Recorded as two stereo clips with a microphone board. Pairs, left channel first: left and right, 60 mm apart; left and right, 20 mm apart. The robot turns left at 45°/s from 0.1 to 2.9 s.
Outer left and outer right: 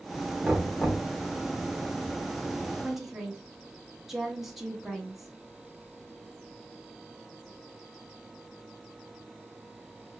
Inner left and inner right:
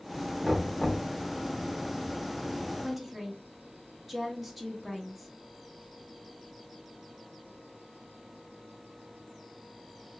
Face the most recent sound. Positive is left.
turn(degrees=-5)  # may be behind; listen again after turning